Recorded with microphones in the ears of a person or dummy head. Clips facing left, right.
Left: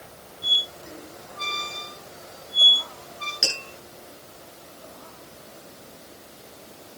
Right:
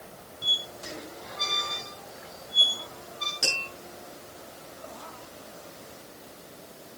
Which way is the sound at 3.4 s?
5° left (ahead or behind).